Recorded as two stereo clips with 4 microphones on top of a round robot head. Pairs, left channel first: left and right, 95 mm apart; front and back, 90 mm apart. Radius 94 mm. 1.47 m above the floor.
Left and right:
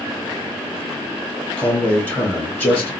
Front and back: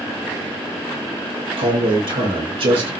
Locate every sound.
1.6 s a man speaking: 160° left, 1.9 m